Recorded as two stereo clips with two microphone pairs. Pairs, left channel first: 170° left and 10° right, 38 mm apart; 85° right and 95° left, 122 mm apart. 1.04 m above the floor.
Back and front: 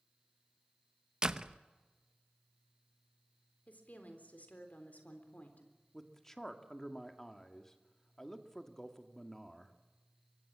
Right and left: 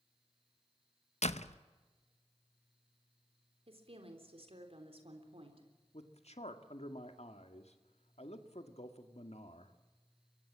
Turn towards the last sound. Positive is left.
turn(degrees=-110)